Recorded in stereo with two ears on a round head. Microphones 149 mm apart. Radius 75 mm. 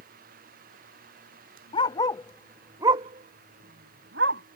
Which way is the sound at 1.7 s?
30° left (ahead or behind).